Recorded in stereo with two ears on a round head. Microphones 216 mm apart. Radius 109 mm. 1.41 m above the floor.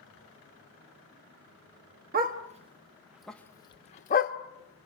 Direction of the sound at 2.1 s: 40° right (ahead or behind).